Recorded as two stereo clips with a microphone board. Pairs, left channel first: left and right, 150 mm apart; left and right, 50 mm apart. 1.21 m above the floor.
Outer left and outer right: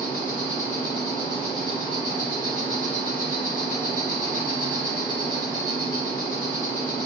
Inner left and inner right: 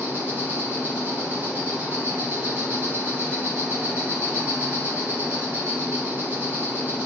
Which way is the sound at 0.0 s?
70° right (ahead or behind).